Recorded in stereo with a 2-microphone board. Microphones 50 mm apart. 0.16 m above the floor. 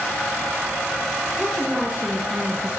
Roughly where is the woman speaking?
Centre.